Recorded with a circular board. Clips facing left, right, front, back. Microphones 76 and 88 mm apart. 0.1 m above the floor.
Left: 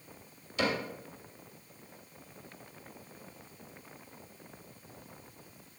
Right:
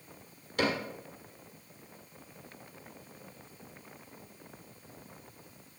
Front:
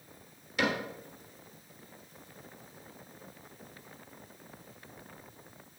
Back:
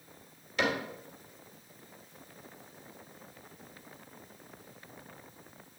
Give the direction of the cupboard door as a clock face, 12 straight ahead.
3 o'clock.